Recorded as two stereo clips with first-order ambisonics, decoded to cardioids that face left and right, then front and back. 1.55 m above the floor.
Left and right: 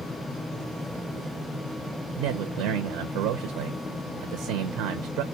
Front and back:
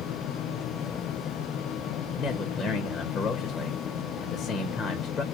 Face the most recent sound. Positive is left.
turn(degrees=-75)